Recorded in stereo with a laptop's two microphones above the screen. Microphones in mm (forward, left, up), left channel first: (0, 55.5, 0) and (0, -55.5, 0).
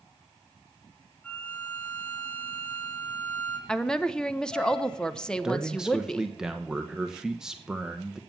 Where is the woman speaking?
10° left (ahead or behind), 0.7 m.